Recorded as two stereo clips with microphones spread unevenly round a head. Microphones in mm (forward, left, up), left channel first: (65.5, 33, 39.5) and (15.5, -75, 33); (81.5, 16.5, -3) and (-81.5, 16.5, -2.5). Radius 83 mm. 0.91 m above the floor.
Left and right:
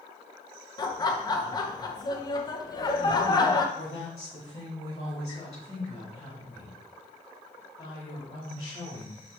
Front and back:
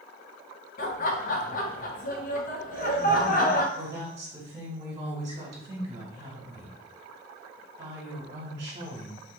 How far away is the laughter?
About 0.7 m.